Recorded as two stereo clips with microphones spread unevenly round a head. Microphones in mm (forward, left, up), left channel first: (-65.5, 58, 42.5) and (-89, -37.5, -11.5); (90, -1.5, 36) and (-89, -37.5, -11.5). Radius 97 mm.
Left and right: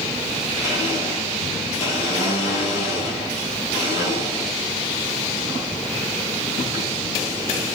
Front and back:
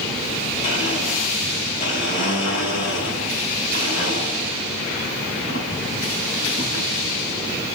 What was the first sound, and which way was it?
A blender, 60° left.